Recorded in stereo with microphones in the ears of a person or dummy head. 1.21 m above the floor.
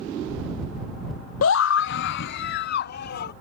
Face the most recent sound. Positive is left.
turn(degrees=55)  # may be behind; listen again after turning